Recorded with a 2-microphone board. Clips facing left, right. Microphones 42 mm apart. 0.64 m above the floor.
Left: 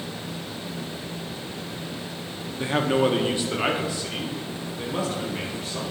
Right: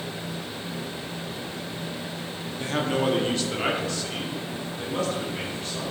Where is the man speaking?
20° left (ahead or behind), 0.6 m; by 5.8 s 10° left (ahead or behind), 2 m.